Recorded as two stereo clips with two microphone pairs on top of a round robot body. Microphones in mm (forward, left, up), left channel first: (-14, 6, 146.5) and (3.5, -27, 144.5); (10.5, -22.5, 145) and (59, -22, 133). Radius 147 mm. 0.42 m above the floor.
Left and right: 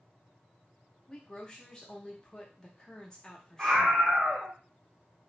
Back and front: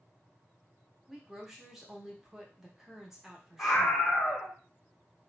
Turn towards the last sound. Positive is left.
turn(degrees=-115)